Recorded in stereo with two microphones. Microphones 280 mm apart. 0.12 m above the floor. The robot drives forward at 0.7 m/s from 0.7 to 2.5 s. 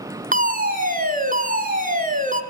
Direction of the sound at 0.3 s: 30° right (ahead or behind).